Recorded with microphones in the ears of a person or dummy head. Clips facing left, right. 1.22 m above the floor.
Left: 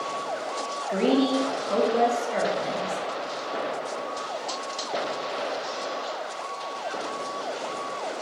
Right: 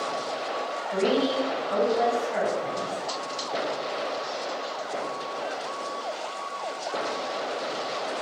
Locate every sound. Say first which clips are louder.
0.9 s a woman speaking: left 2 dB; 55° left (ahead or behind), 0.7 m